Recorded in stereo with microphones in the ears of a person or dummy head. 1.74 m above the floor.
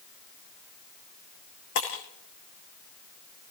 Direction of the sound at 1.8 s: 65° left (ahead or behind).